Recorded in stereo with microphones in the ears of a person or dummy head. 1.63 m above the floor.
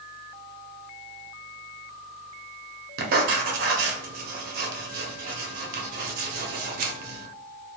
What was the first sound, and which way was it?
Writing, 55° right (ahead or behind).